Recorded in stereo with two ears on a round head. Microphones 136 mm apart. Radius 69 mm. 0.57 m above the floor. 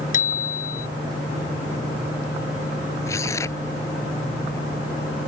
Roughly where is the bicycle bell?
Left.